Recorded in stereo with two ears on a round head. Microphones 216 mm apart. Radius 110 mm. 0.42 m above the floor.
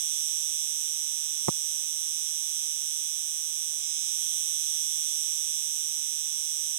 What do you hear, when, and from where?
0.0 s an insect: 65° right (ahead or behind)
1.5 s tapping: 85° right